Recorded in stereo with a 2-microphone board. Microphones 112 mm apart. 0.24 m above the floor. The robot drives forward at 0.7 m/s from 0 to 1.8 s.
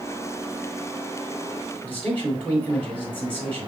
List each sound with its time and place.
1.8 s a man speaking: 15° left (ahead or behind), 2.0 m